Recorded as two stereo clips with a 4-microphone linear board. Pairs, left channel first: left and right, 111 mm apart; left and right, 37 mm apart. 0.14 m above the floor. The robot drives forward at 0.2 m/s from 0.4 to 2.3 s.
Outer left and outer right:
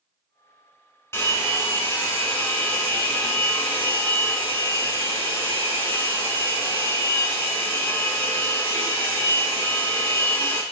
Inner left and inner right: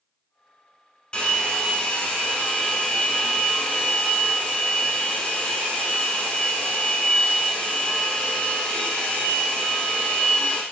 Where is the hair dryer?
25° left (ahead or behind), 0.7 m; by 10.6 s 20° left (ahead or behind), 0.8 m.